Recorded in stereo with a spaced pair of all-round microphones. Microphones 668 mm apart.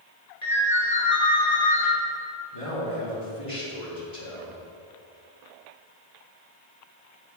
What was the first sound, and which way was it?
A ringtone, 75° left (ahead or behind).